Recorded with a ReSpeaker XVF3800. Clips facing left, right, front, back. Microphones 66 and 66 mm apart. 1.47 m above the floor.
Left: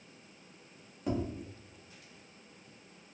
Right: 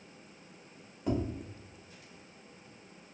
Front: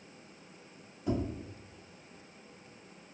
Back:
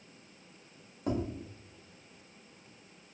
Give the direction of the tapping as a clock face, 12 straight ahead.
6 o'clock.